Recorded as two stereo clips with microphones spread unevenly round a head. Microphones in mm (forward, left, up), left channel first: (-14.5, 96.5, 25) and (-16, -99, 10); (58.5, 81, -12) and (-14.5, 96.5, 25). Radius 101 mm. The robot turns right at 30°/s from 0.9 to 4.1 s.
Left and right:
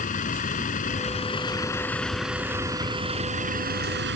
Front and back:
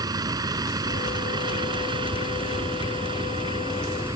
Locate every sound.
0.0 s a vehicle: 140° left; by 4.2 s 125° right